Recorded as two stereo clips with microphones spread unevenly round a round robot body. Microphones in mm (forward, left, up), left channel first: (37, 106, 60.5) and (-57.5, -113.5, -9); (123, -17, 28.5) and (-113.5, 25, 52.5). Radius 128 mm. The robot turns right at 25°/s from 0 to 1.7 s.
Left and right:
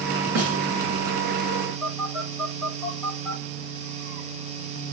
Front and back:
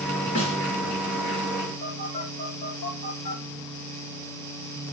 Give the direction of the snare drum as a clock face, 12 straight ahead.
2 o'clock.